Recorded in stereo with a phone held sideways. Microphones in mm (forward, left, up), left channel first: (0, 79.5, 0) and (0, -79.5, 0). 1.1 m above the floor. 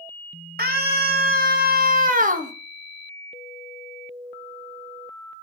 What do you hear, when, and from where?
0.6 s a scream: 80° right, 2.5 m; by 2.5 s 50° right (ahead or behind), 1.2 m